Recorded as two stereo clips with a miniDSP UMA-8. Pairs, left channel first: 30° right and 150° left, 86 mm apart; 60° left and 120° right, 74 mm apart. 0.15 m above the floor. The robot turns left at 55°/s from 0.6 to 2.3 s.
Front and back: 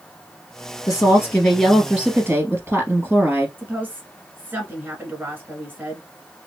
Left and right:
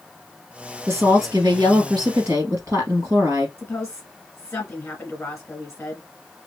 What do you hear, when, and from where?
0.9 s a woman speaking: 75° right, 2.5 m; by 3.5 s 150° right, 2.5 m
3.6 s a woman speaking: 120° left, 1.5 m